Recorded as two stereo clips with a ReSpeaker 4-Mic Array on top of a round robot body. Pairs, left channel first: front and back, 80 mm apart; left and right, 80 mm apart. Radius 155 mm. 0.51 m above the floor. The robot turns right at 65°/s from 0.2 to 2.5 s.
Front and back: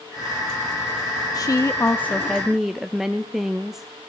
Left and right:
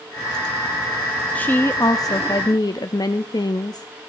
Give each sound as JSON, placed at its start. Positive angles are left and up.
{"t": 1.4, "sound": "a woman speaking", "azimuth_deg": 20, "distance_m": 0.8}